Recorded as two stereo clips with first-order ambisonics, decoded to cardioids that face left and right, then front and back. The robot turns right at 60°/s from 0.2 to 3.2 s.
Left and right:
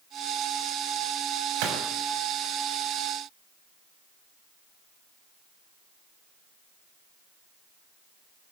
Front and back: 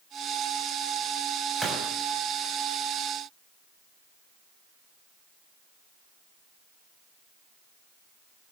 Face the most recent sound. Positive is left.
turn(degrees=10)